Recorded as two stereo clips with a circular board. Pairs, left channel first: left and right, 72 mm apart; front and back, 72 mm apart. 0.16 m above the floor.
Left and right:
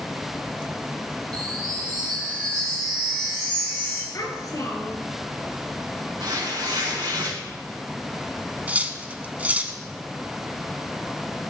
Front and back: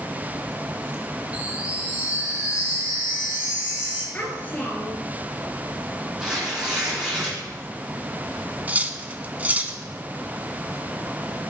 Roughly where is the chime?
Right.